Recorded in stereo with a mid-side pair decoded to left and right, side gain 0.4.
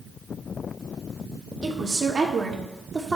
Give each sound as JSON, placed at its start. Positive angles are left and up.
{"t": 1.6, "sound": "a woman speaking", "azimuth_deg": -50, "distance_m": 2.0}